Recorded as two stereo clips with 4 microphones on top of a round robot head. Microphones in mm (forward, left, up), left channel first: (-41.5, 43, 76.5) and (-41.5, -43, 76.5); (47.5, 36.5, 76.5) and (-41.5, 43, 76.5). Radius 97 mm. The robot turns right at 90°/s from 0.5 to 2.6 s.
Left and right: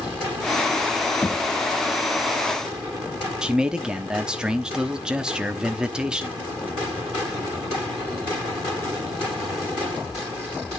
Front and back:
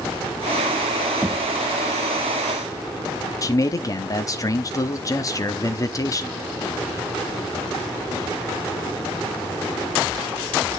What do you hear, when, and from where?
1.2 s knocking: 140° left, 1.0 m; by 1.6 s 170° left, 1.0 m
3.4 s a man speaking: 15° right, 1.2 m